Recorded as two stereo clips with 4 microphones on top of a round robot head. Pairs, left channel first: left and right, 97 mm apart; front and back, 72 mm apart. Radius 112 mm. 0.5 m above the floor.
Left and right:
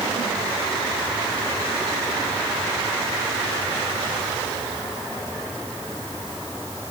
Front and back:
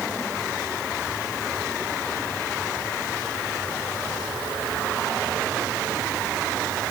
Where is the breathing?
I don't hear breathing.